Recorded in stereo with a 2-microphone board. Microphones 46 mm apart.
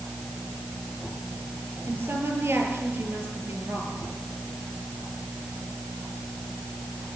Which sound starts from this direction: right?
A woman speaking, at 1.9 s.